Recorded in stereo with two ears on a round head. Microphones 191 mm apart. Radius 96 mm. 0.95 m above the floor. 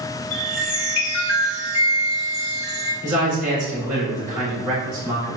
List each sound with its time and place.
0.3 s a chime: 70° left (ahead or behind), 1.4 m
3.0 s a man speaking: 40° right (ahead or behind), 2.0 m